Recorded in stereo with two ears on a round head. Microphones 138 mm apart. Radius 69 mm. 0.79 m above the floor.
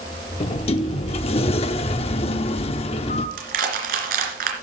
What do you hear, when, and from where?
0.4 s a sliding door: 40° left (ahead or behind), 0.8 m
3.4 s crushing: 60° right (ahead or behind), 2.5 m